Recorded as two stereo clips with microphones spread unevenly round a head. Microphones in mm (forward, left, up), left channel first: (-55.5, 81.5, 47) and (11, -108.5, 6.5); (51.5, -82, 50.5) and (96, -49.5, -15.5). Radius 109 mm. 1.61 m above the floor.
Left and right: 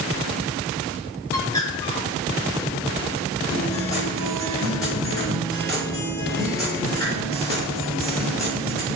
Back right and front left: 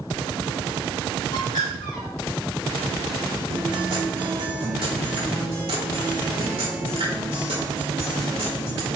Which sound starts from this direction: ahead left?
A guitar, at 3.5 s.